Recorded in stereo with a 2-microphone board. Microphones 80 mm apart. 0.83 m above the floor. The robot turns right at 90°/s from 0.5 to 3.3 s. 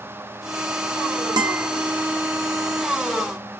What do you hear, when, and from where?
1.4 s a guitar: 60° right (ahead or behind), 0.6 m; by 1.7 s 35° right (ahead or behind), 0.6 m